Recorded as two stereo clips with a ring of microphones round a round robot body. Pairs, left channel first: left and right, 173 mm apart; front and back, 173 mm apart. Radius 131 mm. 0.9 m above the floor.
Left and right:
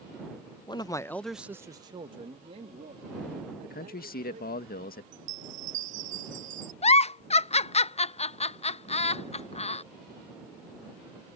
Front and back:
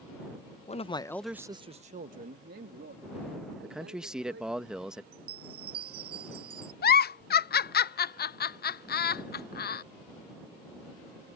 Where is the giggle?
35° left.